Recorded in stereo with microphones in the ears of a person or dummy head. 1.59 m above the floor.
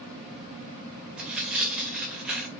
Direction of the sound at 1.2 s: Centre (ahead or behind).